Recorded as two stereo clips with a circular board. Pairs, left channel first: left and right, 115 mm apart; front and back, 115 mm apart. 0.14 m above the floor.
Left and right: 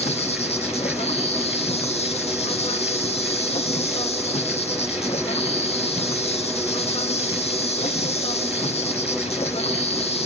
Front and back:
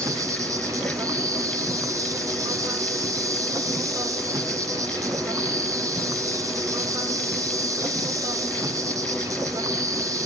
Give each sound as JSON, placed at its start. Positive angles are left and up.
{"t": 0.0, "sound": "an insect", "azimuth_deg": 120, "distance_m": 2.5}